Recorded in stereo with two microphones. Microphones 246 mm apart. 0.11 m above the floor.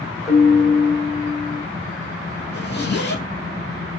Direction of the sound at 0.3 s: 10° left (ahead or behind).